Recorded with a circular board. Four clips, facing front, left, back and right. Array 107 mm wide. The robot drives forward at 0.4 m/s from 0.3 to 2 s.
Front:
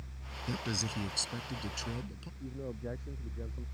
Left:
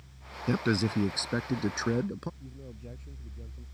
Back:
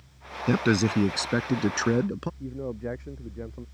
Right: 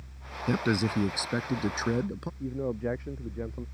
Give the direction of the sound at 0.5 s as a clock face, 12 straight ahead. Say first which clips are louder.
Right 1 dB, back 15 dB; 6 o'clock.